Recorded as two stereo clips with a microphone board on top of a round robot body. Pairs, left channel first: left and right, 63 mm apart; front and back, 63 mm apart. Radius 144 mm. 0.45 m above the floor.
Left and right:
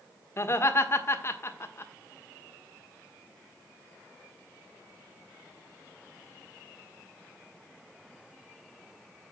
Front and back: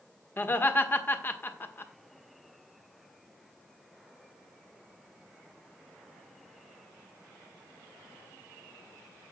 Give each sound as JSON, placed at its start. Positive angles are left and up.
{"t": 0.4, "sound": "laughter", "azimuth_deg": 50, "distance_m": 1.9}